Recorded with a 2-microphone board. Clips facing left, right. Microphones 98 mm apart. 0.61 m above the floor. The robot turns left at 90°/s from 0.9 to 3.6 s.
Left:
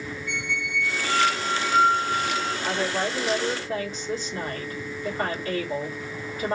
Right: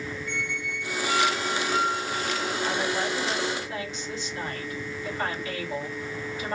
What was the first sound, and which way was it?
A squeak, 150° right.